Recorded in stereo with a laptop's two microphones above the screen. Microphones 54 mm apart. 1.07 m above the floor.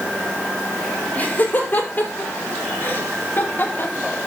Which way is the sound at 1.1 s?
30° left (ahead or behind).